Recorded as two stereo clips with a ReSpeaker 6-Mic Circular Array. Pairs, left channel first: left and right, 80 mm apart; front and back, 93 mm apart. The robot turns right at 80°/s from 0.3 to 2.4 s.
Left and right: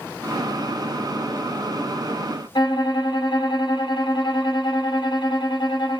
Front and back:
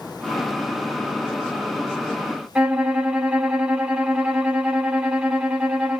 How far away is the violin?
About 1.3 m.